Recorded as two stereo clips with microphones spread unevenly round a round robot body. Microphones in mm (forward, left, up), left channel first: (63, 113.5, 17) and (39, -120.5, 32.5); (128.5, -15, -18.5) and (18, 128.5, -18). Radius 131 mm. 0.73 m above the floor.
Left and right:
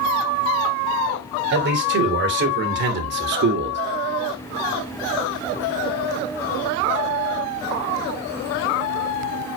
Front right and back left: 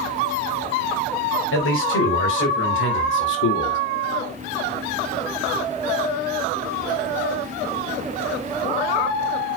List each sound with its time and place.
1.5 s a man speaking: 55° right, 4 m